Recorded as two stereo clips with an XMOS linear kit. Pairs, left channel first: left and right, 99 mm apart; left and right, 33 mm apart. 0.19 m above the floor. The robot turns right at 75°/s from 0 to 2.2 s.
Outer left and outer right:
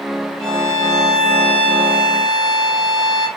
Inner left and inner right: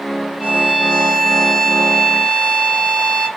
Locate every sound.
0.4 s a violin: 65° right, 1.4 m; by 3.3 s 70° left, 1.4 m